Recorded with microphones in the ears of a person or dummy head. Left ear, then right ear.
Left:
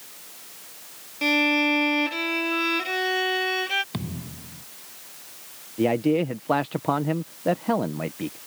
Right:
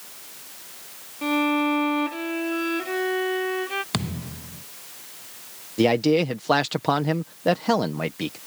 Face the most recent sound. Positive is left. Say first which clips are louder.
# right 3 dB
turn(degrees=-80)